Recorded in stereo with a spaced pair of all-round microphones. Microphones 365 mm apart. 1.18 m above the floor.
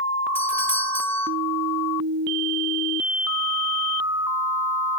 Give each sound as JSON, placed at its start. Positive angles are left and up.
{"t": 0.3, "sound": "a doorbell", "side_deg": 5, "distance_m": 1.9}